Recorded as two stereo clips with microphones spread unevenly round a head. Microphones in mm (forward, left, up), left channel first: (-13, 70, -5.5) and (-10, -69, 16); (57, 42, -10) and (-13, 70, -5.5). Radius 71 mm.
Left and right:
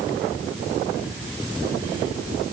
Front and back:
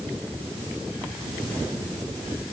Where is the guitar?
I don't hear a guitar.